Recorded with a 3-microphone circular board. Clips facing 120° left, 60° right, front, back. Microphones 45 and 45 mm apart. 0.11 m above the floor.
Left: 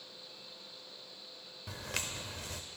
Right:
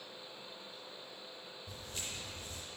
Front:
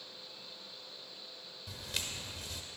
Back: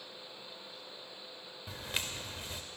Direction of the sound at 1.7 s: 120° left.